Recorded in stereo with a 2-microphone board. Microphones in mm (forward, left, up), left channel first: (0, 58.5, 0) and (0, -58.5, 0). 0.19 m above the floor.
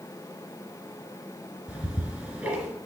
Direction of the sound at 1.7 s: 5° right (ahead or behind).